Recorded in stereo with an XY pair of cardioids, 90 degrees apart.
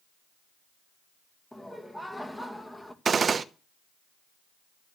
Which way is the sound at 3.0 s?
45° right.